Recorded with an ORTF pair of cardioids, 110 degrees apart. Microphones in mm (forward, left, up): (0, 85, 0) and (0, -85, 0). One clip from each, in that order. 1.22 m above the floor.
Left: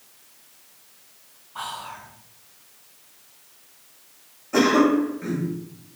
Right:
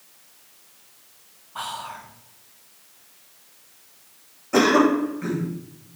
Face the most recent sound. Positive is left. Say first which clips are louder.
# right 1 dB
turn(degrees=-20)